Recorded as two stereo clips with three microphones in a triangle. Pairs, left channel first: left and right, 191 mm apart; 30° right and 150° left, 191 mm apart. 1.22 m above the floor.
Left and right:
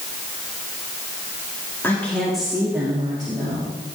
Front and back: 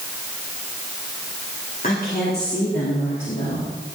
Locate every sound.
1.8 s a woman speaking: 10° left, 3.5 m; by 3.7 s 30° right, 3.5 m